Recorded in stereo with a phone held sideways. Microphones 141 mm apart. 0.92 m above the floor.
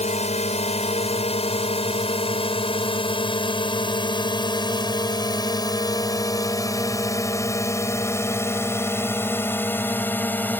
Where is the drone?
50° left (ahead or behind); by 10.6 s 15° left (ahead or behind).